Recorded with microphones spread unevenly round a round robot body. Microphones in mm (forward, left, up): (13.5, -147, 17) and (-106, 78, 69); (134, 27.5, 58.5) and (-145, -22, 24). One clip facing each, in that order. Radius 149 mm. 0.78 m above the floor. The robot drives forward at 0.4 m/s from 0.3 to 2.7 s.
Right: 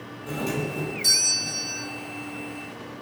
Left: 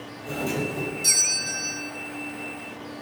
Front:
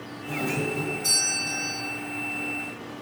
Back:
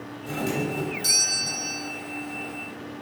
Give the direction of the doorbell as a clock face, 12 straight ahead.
4 o'clock.